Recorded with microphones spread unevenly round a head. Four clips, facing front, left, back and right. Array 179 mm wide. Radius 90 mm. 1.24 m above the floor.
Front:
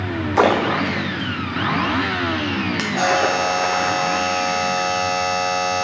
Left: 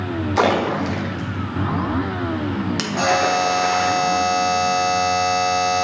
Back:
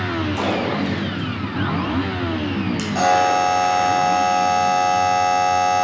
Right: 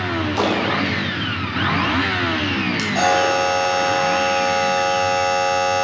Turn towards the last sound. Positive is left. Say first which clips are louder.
# right 1 dB, back 3 dB
turn(degrees=-120)